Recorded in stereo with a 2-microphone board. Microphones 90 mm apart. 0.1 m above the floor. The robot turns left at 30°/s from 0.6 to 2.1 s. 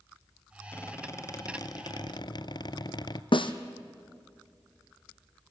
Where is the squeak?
150° left, 0.7 m; by 3.2 s 110° left, 0.7 m.